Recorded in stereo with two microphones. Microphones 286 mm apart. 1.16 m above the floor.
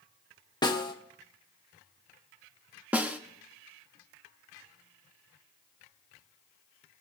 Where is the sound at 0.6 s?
15° left (ahead or behind), 1.1 m.